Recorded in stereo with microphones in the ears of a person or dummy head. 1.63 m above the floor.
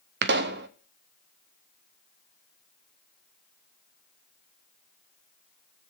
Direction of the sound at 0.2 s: 60° right (ahead or behind).